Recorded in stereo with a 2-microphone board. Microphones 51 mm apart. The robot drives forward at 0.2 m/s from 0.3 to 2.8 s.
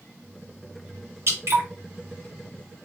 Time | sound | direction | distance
1.3 | dripping | 60° right (ahead or behind) | 2.5 m